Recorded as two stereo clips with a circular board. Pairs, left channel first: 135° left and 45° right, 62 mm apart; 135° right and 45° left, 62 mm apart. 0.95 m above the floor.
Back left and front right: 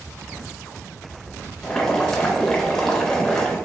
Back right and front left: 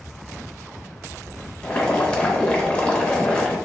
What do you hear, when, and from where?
1.6 s boiling: 165° right, 0.7 m